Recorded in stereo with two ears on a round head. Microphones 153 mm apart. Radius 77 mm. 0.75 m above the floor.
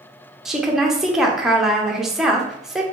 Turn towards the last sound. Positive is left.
turn(degrees=0)  # may be behind; listen again after turning